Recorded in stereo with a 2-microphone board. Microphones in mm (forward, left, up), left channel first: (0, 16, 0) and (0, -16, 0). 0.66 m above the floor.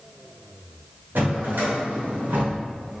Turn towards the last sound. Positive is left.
turn(degrees=-75)  # may be behind; listen again after turning